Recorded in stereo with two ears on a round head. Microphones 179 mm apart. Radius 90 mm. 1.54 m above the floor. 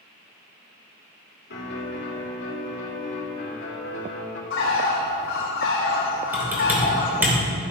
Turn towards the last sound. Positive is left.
turn(degrees=-10)  # may be behind; listen again after turning